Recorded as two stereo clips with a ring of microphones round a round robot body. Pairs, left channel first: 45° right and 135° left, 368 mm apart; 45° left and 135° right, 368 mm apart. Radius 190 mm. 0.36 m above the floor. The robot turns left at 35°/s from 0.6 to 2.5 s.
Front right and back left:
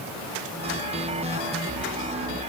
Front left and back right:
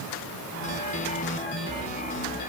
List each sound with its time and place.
Only background noise.